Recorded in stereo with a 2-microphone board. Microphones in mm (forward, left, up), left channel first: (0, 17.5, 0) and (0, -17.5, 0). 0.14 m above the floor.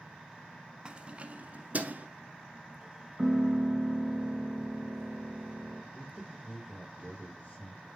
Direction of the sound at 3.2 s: 5° left (ahead or behind).